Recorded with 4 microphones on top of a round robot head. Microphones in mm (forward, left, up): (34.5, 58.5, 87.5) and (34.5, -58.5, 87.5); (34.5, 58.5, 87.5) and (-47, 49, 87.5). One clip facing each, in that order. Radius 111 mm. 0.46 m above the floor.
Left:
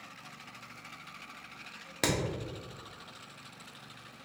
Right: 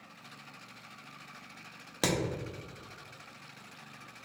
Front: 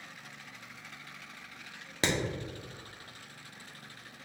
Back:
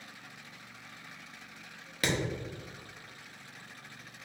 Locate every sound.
2.0 s hammering: 15° right, 1.1 m